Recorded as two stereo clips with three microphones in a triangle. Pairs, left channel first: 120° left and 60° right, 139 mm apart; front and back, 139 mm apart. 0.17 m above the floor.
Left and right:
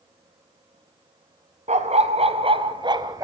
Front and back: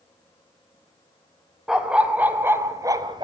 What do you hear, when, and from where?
1.7 s a dog barking: 95° right, 2 m; by 3.2 s 125° right, 1.3 m